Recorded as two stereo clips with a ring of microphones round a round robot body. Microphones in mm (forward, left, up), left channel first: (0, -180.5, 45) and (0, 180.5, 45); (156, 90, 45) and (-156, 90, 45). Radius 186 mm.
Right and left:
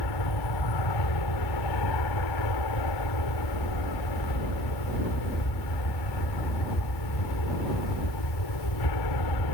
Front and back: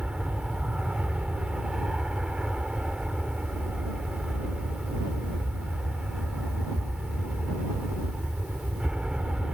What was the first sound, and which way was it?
An aircraft, 90° right.